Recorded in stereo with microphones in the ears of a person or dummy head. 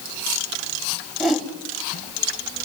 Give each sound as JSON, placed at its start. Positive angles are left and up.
{"t": 1.2, "sound": "a whoosh", "side_deg": 0, "distance_m": 3.0}